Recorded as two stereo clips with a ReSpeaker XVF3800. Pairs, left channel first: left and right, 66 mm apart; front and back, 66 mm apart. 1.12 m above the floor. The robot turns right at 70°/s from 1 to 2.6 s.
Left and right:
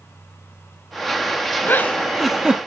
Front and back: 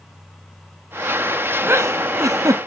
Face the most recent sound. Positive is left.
turn(degrees=-160)